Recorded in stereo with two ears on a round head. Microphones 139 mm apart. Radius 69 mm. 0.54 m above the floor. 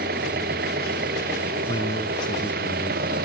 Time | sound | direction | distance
0.0 | an engine running | 65° right (ahead or behind) | ?
1.7 | a man speaking | 30° left (ahead or behind) | ?